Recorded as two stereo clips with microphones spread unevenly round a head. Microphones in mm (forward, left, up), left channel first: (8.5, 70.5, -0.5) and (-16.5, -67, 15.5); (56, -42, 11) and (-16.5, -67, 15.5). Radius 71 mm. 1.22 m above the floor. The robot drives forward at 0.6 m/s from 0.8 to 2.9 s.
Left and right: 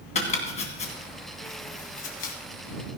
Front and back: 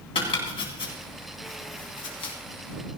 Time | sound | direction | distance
0.1 | chopping | 35° left | 2.5 m